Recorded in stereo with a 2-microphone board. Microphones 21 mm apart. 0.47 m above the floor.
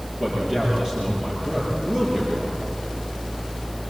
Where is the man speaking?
35° right (ahead or behind), 9.5 m; by 2.5 s 30° right (ahead or behind), 7.5 m.